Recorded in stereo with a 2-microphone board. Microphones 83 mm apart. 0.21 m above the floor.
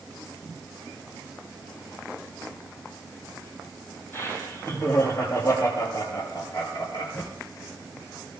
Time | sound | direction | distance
4.1 | laughter | 30° left (ahead or behind) | 7 m